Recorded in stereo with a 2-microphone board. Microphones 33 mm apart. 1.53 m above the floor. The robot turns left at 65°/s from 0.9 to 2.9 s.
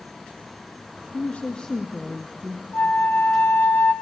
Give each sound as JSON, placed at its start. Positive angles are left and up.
{"t": 1.1, "sound": "a woman speaking", "azimuth_deg": 55, "distance_m": 0.8}
{"t": 2.7, "sound": "a flute", "side_deg": 60, "distance_m": 0.9}